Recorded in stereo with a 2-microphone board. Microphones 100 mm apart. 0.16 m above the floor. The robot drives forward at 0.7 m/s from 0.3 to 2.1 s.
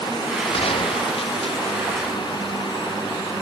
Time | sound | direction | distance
0.5 | a gunshot | 70° left (ahead or behind) | ?